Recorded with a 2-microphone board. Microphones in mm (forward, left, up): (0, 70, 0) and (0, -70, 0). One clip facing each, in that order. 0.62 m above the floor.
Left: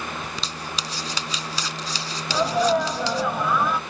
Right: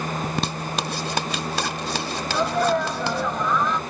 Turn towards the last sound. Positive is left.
turn(degrees=5)  # may be behind; listen again after turning